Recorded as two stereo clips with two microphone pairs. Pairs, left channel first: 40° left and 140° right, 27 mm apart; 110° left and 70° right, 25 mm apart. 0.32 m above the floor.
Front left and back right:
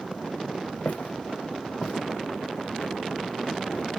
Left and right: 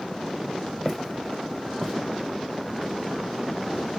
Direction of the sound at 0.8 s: 15° left.